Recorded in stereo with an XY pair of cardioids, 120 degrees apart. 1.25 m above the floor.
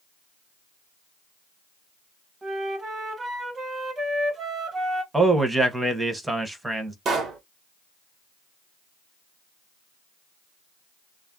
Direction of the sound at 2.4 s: 25° right.